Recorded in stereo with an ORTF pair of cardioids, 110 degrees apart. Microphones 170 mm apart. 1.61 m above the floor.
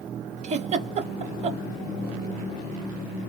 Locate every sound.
0.4 s a giggle: 45° right, 0.8 m